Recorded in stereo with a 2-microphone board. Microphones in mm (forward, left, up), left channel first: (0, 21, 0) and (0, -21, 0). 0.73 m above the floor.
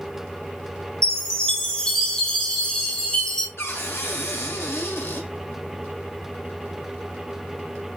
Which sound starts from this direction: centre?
A chime, at 1.0 s.